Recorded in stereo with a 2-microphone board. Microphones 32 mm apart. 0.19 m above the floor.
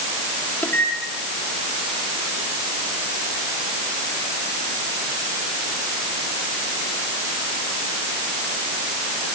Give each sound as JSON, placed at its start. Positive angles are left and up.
{"t": 0.6, "sound": "a microwave", "side_deg": 60, "distance_m": 4.5}